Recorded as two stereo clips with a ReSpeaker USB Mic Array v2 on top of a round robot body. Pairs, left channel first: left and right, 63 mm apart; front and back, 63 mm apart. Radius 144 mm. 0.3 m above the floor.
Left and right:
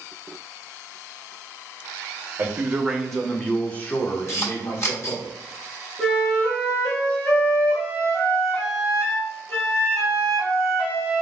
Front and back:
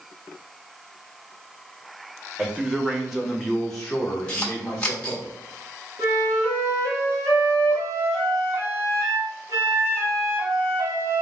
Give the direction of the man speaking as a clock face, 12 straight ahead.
4 o'clock.